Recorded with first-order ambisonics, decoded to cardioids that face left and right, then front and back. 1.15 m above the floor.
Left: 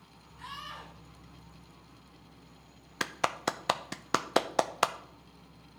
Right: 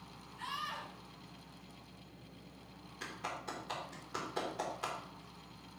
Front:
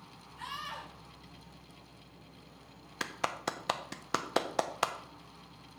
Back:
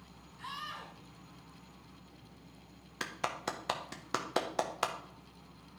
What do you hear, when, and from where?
0.4 s a scream: 5° right, 4.5 m
3.0 s a clap: 80° left, 0.5 m